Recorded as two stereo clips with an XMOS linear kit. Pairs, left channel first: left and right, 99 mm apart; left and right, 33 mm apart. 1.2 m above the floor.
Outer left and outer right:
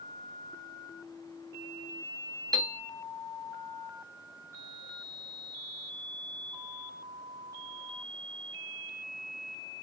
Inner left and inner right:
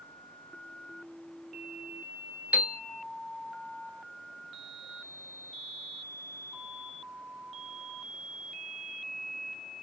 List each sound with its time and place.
2.5 s a piano: 40° right (ahead or behind), 0.8 m